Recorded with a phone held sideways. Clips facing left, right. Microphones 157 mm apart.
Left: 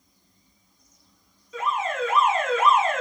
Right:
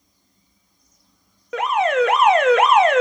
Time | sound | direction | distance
1.5 | an alarm | 75° right (ahead or behind) | 1.4 m